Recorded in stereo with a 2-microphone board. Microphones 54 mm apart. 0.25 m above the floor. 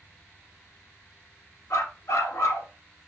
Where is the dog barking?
70° left (ahead or behind), 1.3 m.